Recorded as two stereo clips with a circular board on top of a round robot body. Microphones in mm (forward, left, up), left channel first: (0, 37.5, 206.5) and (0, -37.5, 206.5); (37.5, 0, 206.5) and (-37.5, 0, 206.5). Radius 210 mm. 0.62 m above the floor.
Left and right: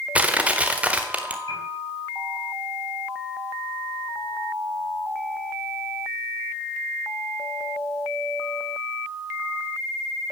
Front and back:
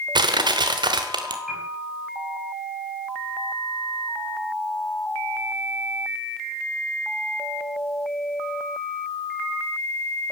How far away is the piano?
About 7 m.